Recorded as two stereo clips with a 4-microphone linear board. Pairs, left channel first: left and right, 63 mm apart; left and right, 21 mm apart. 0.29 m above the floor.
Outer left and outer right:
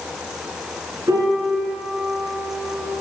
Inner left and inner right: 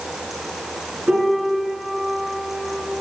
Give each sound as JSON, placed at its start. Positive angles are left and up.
{"t": 1.1, "sound": "a piano", "side_deg": -55, "distance_m": 2.5}